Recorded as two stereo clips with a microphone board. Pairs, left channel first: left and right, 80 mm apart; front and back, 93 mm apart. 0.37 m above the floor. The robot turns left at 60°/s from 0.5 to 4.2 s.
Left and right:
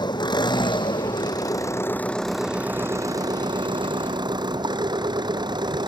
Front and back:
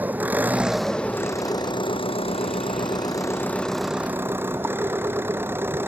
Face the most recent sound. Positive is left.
turn(degrees=-115)